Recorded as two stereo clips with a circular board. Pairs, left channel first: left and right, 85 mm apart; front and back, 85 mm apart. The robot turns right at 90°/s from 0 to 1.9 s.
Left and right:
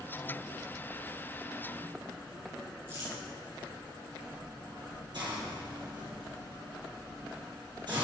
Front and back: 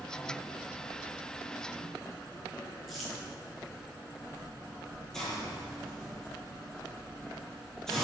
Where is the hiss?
80° right, 4 m.